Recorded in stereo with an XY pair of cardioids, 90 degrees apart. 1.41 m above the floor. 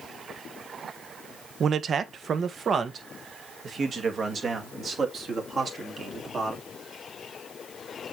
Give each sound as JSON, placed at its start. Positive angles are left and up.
{"t": 1.6, "sound": "a man speaking", "azimuth_deg": -60, "distance_m": 0.8}